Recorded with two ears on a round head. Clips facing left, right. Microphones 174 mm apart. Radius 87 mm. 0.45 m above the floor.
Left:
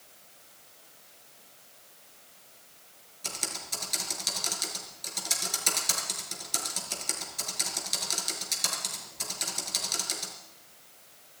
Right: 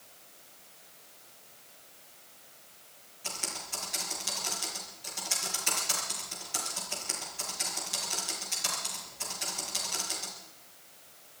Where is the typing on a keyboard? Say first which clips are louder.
Left 1 dB; 50° left (ahead or behind), 4.5 m.